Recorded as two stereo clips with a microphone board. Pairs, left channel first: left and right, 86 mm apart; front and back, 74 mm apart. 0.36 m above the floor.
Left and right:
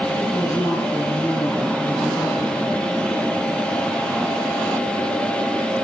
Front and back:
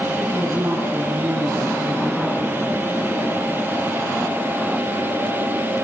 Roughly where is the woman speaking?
Behind left.